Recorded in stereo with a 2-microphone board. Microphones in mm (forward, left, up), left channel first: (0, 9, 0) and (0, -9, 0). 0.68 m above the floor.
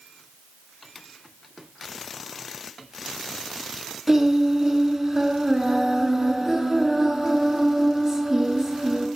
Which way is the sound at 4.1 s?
10° right (ahead or behind).